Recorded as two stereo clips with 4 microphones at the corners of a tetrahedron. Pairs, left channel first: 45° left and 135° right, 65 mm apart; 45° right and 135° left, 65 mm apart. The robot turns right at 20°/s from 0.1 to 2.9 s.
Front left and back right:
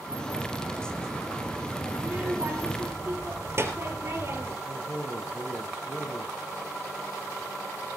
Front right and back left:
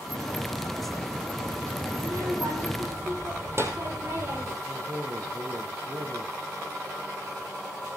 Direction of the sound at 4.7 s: 95° left.